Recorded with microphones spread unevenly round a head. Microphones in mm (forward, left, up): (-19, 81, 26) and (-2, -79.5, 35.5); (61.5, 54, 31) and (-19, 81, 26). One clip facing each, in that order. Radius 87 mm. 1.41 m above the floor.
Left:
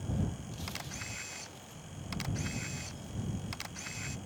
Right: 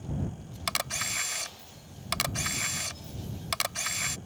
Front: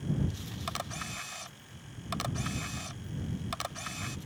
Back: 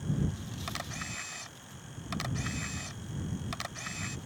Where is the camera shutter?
90° right.